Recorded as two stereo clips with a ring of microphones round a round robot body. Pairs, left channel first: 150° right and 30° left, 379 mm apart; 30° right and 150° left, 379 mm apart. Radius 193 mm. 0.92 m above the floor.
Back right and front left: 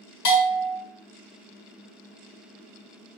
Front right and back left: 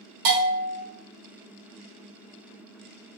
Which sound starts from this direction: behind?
A bell, at 0.2 s.